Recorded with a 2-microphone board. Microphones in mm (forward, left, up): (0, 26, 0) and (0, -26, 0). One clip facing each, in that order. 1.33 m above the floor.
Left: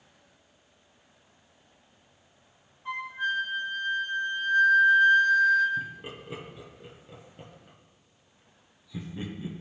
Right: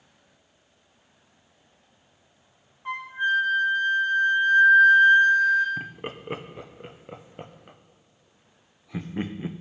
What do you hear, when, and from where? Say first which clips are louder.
2.9 s a flute: right 5 dB; 40° right (ahead or behind), 2 m
5.8 s laughter: right 1 dB; 50° right (ahead or behind), 0.8 m